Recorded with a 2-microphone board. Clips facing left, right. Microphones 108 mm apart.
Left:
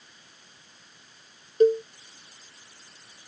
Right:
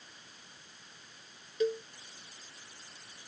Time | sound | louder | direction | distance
1.6 | a cowbell | left 12 dB | 45° left (ahead or behind) | ?